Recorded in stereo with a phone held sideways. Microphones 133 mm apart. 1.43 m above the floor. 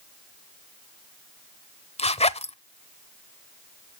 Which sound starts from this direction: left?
A zipper, at 2.0 s.